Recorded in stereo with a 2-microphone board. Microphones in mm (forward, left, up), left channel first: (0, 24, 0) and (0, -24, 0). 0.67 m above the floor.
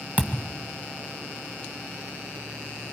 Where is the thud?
35° right (ahead or behind), 1.6 m.